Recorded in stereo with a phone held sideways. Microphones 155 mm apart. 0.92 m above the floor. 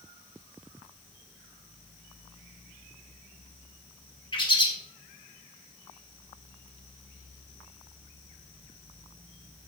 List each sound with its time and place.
4.3 s a bird: 30° left (ahead or behind), 2 m